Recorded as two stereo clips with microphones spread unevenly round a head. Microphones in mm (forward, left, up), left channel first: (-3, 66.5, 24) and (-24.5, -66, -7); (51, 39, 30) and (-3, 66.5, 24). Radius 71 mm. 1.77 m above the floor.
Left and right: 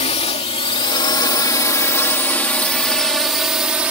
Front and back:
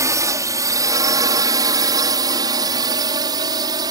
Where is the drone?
125° left; by 3.9 s straight behind.